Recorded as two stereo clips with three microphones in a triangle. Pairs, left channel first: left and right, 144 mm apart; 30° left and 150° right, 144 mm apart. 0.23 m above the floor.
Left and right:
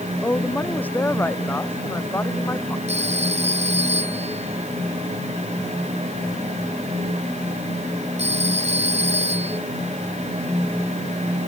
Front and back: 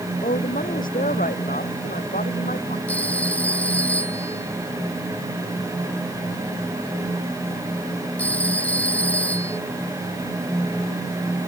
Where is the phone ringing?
50° right.